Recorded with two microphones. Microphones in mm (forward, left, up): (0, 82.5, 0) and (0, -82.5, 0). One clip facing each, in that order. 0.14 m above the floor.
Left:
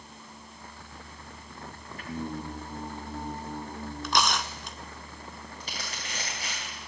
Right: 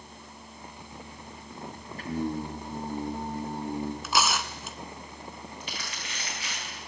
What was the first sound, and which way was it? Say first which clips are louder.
Singing: right 5 dB; 40° right (ahead or behind).